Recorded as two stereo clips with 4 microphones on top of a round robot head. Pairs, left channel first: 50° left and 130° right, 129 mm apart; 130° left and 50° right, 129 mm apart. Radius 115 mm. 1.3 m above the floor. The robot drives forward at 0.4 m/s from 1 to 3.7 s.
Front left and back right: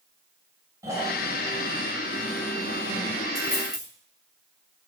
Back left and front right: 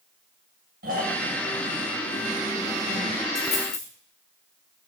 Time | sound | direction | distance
0.8 | snoring | 60° right | 1.7 m
3.4 | a dropped coin | 170° left | 3 m